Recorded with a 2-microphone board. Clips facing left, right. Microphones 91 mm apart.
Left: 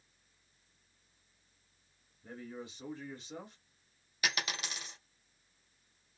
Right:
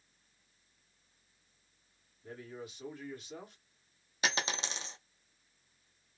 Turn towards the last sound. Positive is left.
turn(degrees=-25)  # may be behind; listen again after turning